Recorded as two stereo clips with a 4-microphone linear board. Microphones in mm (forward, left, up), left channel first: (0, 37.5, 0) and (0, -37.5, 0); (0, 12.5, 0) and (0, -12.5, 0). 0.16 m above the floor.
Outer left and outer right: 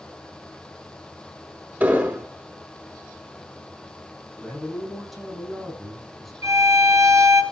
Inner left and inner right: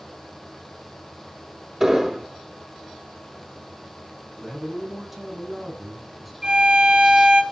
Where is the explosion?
25° right (ahead or behind), 3 m.